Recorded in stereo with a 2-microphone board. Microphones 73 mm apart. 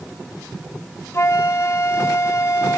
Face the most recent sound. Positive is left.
turn(degrees=35)  # may be behind; listen again after turning